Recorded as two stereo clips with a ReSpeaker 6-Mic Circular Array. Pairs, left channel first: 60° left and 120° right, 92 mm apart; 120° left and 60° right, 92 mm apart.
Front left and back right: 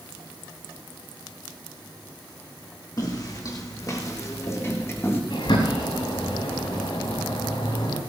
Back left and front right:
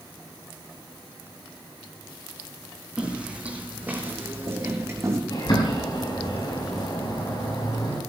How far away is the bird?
About 7 m.